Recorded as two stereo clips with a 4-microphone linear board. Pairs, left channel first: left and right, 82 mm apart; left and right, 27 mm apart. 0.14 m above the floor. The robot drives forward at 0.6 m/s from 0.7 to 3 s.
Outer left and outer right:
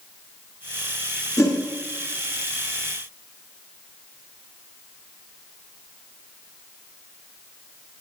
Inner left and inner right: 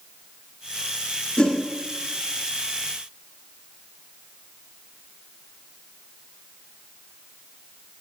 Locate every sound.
1.4 s a whoosh: 40° left (ahead or behind), 1.9 m